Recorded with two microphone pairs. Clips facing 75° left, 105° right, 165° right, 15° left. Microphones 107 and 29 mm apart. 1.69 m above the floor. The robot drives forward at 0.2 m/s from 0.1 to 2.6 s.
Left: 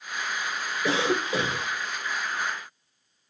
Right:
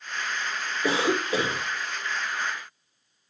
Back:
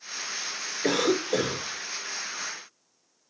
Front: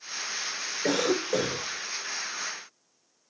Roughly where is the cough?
Behind right.